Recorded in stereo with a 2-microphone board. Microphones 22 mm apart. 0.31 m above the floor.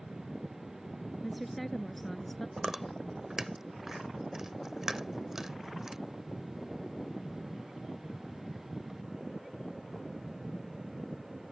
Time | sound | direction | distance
1.2 | a woman speaking | centre (ahead or behind) | ?
2.6 | chewing | 20° right (ahead or behind) | ?